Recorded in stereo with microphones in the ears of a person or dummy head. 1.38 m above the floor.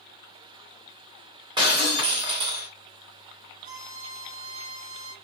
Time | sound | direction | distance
1.6 | breaking glass | 25° right (ahead or behind) | 1.1 m
3.6 | a violin | 80° right | 1.7 m